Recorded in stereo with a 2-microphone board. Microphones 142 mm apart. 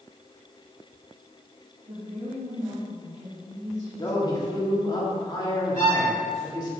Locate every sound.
1.9 s a woman speaking: 70° right (ahead or behind), 1.9 m
4.0 s a man speaking: 30° left (ahead or behind), 1.9 m
5.8 s a violin: 65° left (ahead or behind), 1.8 m